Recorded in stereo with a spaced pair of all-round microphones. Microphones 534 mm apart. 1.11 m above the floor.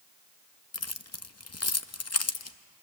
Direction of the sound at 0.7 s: 30° left (ahead or behind).